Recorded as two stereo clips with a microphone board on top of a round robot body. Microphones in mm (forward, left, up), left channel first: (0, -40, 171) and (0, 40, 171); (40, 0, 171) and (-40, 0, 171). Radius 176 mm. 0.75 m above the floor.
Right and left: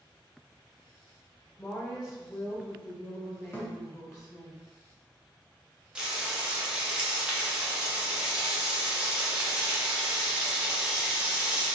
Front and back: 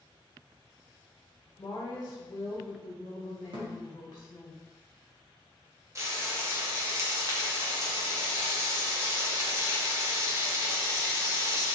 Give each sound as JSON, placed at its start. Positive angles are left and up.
{"t": 1.6, "sound": "a woman speaking", "azimuth_deg": -35, "distance_m": 1.0}
{"t": 3.5, "sound": "a thud", "azimuth_deg": -155, "distance_m": 0.7}
{"t": 6.0, "sound": "frying", "azimuth_deg": 165, "distance_m": 1.2}